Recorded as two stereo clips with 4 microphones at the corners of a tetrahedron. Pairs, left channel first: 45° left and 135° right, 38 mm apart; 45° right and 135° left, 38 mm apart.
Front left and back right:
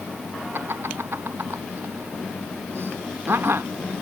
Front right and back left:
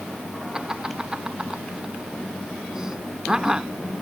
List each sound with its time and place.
0.5 s laughter: 150° right